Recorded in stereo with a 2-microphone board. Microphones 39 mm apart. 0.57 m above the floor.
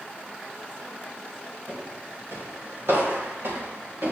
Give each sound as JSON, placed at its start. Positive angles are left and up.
{"t": 1.7, "sound": "footsteps", "side_deg": -70, "distance_m": 8.0}